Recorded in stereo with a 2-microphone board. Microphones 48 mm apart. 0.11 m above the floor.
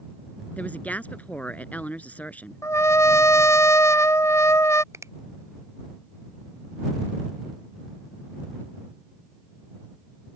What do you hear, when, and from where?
0.6 s a woman speaking: 30° left (ahead or behind)
2.6 s a trumpet: 80° left
4.9 s a finger snap: 75° right (ahead or behind)